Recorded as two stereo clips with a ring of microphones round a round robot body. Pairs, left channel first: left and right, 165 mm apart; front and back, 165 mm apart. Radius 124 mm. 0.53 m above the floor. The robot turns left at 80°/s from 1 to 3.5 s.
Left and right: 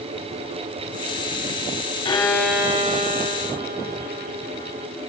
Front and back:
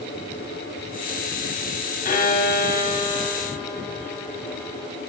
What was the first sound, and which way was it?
A violin, 35° left.